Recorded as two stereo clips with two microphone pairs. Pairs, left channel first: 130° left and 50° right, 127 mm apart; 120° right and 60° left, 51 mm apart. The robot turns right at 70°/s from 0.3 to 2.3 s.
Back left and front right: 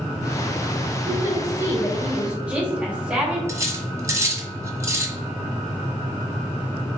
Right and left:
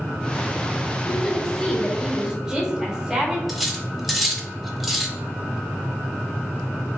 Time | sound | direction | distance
1.1 | a woman speaking | 75° right | 0.9 m
3.5 | cutlery clinking | 20° right | 0.5 m